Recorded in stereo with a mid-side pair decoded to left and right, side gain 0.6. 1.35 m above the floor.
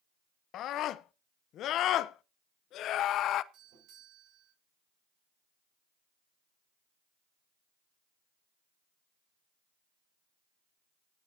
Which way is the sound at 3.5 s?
65° right.